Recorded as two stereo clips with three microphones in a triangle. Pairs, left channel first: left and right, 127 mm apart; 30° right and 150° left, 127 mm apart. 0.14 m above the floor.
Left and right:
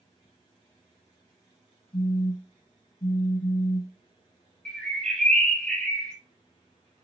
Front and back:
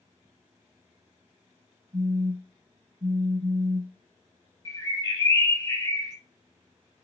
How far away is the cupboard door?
No cupboard door in this recording.